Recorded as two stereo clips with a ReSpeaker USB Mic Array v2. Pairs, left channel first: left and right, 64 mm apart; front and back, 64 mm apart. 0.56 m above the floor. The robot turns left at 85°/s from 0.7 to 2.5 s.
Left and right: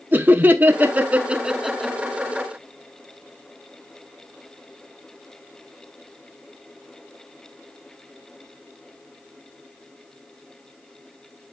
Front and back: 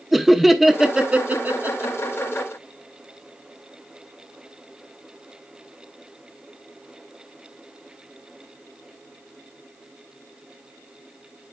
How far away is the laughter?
About 0.8 m.